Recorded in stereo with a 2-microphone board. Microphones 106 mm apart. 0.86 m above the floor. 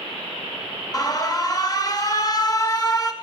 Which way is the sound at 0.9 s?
35° left (ahead or behind).